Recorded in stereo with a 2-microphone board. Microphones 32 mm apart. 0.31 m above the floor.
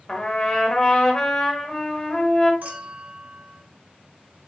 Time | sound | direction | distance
0.1 | a trumpet | 20° left (ahead or behind) | 1.2 m
2.6 | a clink | 55° right (ahead or behind) | 1.3 m